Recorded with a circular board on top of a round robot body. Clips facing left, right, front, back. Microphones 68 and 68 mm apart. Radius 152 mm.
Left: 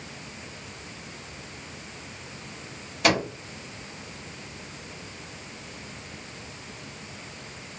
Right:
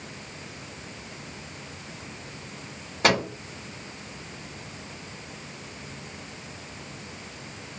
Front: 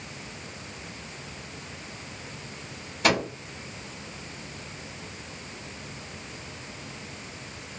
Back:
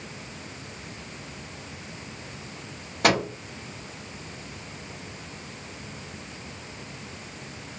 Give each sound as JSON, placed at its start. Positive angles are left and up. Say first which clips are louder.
{"t": 3.0, "sound": "a microwave", "louder": "right 1 dB, back 2 dB", "azimuth_deg": -145, "distance_m": 1.3}